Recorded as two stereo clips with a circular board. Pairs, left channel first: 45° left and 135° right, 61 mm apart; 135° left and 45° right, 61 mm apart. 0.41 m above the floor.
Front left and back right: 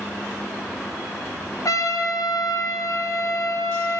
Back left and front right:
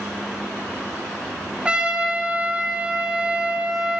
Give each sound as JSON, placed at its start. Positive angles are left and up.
{"t": 1.6, "sound": "a trumpet", "azimuth_deg": 25, "distance_m": 1.5}